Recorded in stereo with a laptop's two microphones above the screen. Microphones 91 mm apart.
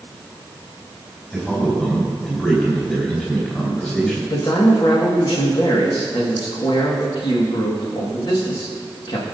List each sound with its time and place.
1.3 s a man speaking: 20° left (ahead or behind), 4 m
4.3 s a man speaking: 60° left (ahead or behind), 1.6 m